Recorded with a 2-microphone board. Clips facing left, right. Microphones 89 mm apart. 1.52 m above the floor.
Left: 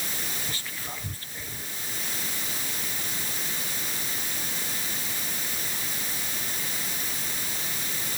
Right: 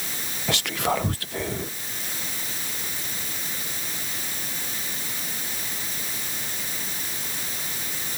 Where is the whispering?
70° right (ahead or behind).